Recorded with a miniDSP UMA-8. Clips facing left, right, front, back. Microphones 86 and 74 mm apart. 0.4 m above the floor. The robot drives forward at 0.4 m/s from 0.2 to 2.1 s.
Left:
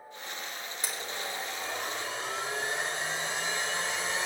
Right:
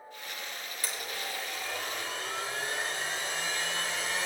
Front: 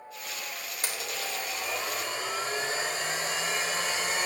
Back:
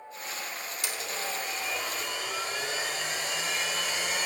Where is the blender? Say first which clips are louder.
Left 1 dB, even; 30° left, 2 m; by 4.3 s 40° left, 1.9 m.